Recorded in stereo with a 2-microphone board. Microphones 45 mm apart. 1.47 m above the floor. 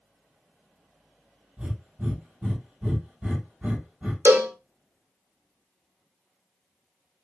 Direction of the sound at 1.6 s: 30° right (ahead or behind).